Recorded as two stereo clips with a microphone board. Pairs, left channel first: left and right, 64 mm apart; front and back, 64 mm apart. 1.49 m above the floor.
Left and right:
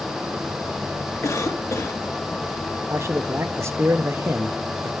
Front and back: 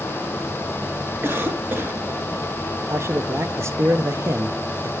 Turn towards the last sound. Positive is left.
turn(degrees=-135)